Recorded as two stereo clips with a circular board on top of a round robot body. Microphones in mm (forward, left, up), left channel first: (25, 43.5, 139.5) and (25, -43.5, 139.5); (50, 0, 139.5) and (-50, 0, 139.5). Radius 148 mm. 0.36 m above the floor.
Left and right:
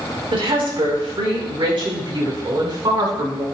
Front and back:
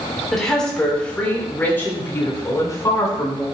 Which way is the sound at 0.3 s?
85° right.